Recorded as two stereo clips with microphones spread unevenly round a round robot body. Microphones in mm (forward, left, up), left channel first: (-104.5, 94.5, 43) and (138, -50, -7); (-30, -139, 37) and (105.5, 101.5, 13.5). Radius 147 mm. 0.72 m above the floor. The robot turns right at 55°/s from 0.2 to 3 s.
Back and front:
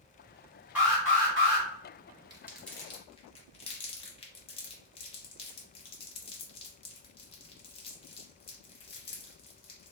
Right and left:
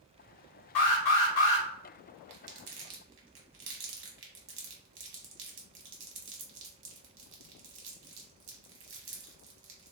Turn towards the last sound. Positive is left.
turn(degrees=90)